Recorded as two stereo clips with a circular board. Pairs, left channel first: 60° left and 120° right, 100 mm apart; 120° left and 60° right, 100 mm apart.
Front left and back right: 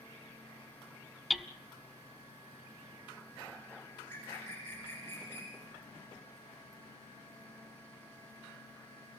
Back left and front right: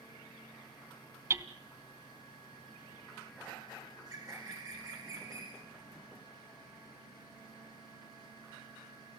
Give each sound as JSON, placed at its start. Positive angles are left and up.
{"t": 1.3, "sound": "hammering", "azimuth_deg": -35, "distance_m": 0.8}
{"t": 3.9, "sound": "a bird", "azimuth_deg": -10, "distance_m": 7.0}